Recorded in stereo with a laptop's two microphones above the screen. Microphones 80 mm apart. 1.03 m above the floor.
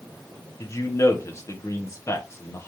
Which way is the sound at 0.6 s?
40° left (ahead or behind).